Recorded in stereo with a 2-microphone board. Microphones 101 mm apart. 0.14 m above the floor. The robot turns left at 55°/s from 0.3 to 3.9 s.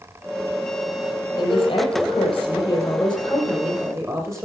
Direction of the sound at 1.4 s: 110° left.